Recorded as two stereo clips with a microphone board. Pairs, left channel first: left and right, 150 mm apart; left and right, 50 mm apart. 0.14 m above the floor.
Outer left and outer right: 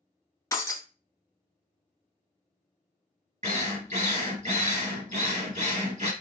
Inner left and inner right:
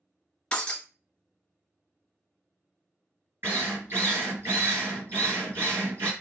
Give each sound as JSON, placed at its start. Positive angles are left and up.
{"t": 0.5, "sound": "breaking glass", "side_deg": 20, "distance_m": 0.8}
{"t": 3.4, "sound": "a drill", "side_deg": -50, "distance_m": 2.0}